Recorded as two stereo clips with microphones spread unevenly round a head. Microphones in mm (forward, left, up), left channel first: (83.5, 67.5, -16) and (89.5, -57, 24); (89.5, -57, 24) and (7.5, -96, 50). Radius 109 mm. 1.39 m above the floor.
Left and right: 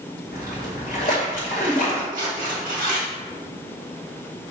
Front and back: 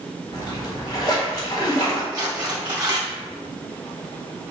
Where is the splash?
145° left, 1.9 m.